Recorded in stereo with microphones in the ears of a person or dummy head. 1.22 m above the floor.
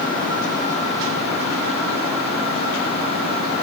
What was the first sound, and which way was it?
Only background noise.